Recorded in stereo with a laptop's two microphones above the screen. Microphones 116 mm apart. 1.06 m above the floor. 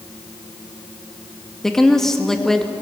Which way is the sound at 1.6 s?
5° left (ahead or behind).